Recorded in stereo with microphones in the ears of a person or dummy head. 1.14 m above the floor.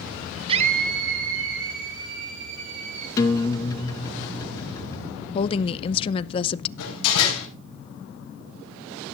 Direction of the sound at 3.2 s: 20° left (ahead or behind).